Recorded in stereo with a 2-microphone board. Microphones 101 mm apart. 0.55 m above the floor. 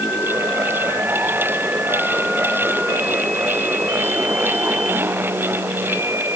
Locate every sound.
Only background noise.